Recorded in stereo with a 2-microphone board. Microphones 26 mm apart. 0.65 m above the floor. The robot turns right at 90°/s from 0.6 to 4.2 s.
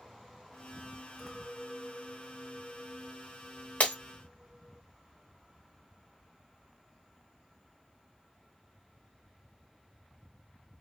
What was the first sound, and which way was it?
A clink, straight behind.